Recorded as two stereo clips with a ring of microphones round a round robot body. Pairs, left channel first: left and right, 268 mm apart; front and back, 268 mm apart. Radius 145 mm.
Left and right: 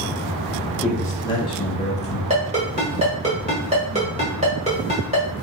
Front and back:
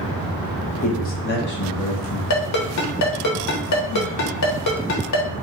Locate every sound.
0.8 s a man speaking: 15° left, 0.9 m; by 2.2 s 30° left, 1.5 m
2.3 s a ringtone: 20° right, 1.3 m